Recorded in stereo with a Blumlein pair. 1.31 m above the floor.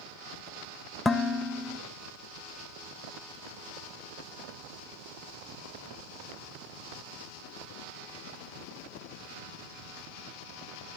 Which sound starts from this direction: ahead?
Dishes clattering, at 1.1 s.